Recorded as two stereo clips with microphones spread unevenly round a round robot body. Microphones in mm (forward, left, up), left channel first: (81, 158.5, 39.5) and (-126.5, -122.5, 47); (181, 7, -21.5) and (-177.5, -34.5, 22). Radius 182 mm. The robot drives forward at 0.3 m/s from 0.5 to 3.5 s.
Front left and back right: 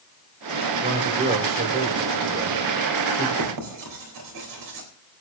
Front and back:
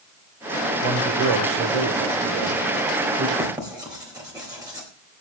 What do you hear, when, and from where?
0.8 s a man speaking: 170° left, 3 m
3.4 s writing: 90° right, 4 m